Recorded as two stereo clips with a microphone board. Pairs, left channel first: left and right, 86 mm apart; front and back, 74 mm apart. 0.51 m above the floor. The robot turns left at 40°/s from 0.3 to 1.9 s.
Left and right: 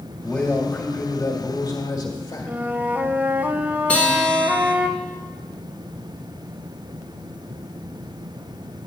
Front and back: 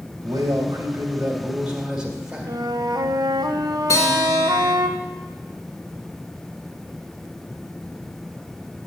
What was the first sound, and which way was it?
A man speaking, 170° left.